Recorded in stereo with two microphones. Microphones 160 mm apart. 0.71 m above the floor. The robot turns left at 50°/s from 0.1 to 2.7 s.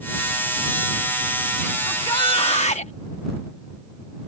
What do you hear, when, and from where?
1.9 s a shout: 155° left; by 2.9 s 115° left